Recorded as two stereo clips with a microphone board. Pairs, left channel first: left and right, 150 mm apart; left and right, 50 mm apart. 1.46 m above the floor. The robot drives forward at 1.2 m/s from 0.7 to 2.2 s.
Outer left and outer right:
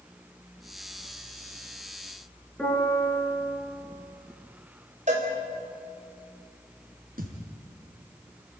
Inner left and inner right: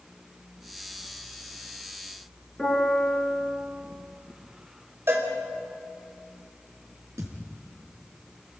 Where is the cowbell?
55° right (ahead or behind), 4 m.